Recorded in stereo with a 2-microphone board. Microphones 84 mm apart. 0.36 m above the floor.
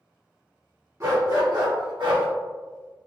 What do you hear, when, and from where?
1.0 s a dog barking: 45° right (ahead or behind), 1.1 m; by 2.3 s 80° right, 1.1 m